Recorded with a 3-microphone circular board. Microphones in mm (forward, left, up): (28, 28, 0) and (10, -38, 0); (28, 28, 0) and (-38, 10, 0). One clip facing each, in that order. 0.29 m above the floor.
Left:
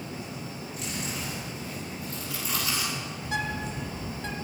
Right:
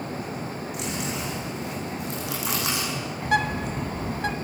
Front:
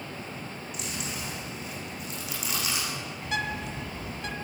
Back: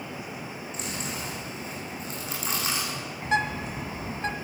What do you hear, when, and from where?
0.7 s chewing: 110° right, 8 m
3.2 s a bird: 115° right, 1.3 m